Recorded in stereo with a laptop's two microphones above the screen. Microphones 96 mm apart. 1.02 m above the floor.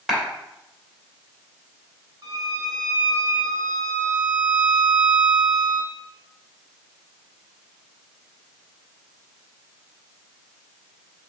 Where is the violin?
45° right (ahead or behind), 1.4 m.